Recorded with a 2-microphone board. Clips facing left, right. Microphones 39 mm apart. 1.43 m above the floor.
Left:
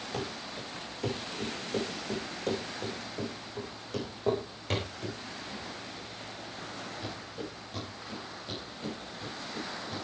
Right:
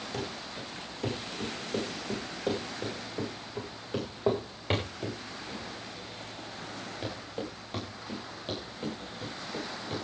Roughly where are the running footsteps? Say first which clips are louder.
Left 1 dB; centre.